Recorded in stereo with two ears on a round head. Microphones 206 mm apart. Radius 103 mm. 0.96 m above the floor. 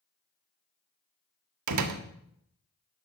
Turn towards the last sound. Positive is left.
turn(degrees=-85)